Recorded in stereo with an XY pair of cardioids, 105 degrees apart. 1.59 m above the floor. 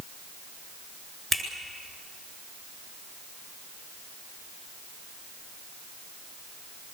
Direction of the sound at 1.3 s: 20° right.